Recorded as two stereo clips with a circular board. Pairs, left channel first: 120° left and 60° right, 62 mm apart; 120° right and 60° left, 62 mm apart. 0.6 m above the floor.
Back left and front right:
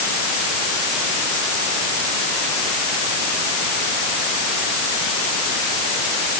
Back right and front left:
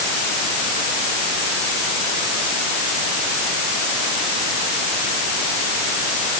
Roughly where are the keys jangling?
I don't hear keys jangling.